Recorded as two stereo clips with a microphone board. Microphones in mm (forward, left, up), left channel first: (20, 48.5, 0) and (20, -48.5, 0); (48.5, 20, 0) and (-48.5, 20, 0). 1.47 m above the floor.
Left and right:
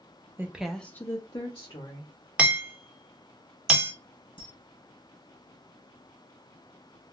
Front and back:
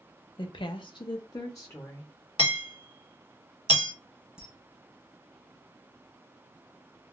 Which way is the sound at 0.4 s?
25° right.